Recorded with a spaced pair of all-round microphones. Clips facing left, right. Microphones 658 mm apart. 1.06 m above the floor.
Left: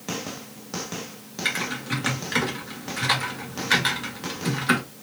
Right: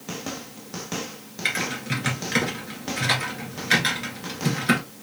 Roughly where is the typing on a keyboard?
Right.